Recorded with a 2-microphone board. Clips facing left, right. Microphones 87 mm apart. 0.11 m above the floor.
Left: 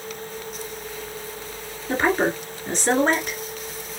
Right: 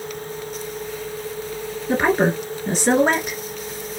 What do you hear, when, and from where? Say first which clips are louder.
1.9 s a woman speaking: right 3 dB; 10° right (ahead or behind), 1.3 m